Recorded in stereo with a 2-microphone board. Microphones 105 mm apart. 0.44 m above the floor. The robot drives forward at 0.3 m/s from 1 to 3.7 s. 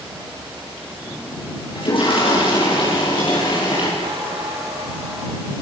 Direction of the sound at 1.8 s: 55° left (ahead or behind).